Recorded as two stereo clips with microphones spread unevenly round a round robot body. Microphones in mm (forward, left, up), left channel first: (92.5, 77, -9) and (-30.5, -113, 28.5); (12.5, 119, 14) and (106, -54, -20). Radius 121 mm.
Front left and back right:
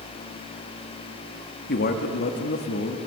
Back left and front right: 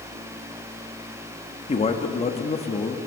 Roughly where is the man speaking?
Ahead left.